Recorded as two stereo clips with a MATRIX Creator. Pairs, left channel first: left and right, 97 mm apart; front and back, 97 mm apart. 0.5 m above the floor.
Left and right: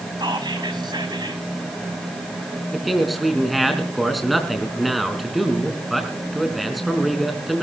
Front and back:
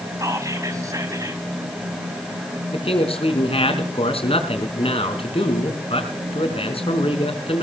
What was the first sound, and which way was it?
Whispering, 130° right.